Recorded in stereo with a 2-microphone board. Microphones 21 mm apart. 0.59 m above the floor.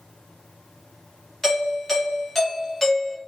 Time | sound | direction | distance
1.4 | a doorbell | 15° left (ahead or behind) | 1.0 m